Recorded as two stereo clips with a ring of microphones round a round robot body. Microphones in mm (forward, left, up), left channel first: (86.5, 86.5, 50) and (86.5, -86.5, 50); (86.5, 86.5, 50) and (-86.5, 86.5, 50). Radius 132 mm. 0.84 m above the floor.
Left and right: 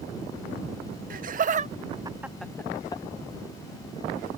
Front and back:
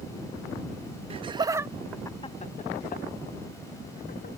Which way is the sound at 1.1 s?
125° right.